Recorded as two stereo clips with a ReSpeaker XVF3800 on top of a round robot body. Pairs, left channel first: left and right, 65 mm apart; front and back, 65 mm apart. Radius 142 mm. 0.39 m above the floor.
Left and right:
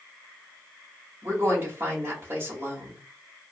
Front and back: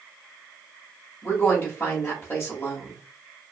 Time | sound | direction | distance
1.2 | a woman speaking | 45° right | 1.4 m